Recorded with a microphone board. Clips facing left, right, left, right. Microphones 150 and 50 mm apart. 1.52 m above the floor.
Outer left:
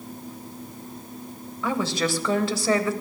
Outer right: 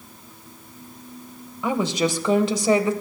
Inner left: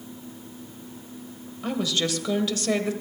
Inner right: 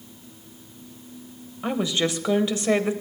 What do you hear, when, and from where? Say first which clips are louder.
1.6 s a woman speaking: outer right 3 dB, inner right 2 dB; 20° right (ahead or behind), 1.3 m